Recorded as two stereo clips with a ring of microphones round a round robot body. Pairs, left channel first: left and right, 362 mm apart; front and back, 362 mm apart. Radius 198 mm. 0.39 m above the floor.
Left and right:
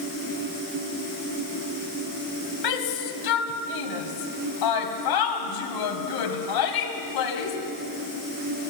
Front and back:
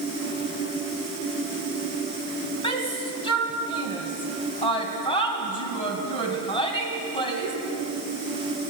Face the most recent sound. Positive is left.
turn(degrees=75)